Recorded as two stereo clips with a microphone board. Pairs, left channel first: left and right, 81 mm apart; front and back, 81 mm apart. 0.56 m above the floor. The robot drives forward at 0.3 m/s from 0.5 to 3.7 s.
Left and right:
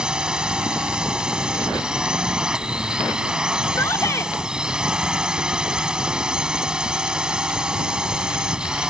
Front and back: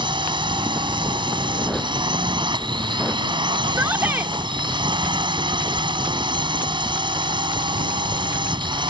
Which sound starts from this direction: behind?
A drone, at 0.0 s.